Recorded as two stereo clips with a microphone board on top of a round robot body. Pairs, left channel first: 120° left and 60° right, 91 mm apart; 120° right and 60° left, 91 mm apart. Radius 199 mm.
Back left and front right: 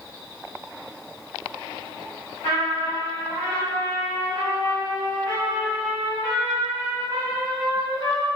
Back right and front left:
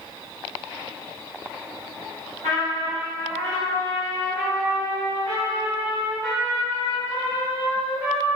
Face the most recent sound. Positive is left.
turn(degrees=-60)